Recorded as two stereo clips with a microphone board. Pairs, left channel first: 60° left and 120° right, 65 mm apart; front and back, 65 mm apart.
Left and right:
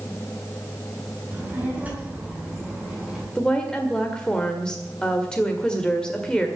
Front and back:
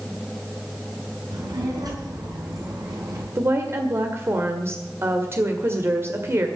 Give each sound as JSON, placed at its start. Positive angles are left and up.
{"t": 1.3, "sound": "a child speaking", "azimuth_deg": 175, "distance_m": 5.5}
{"t": 3.4, "sound": "a woman speaking", "azimuth_deg": 135, "distance_m": 1.7}